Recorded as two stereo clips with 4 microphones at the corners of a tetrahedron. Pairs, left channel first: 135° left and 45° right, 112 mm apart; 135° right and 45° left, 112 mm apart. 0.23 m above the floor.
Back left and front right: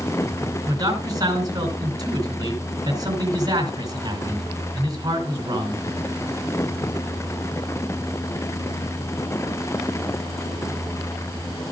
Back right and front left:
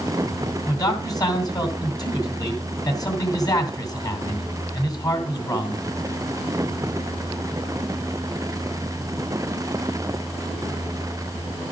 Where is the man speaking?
90° right, 2.5 m.